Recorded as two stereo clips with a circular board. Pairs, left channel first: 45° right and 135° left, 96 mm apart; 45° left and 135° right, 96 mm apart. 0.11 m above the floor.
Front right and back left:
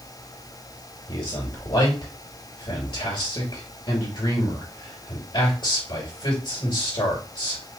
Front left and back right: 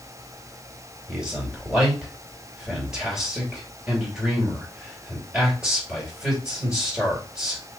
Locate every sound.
1.1 s a man speaking: 55° right, 2.5 m